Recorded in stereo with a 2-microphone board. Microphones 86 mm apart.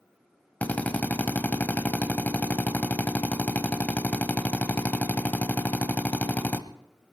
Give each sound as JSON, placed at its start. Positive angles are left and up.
{"t": 0.6, "sound": "a drill", "side_deg": 20, "distance_m": 0.9}